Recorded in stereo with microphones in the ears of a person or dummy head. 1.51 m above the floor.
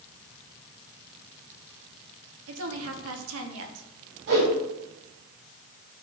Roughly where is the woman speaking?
Right.